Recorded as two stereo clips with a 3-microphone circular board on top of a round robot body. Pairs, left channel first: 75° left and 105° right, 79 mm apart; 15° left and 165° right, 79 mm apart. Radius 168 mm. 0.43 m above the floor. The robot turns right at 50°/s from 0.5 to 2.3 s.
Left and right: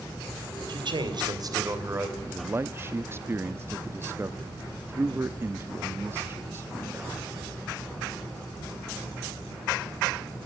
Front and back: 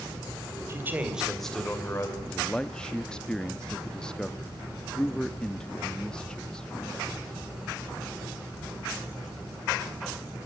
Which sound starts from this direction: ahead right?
A man speaking, at 2.2 s.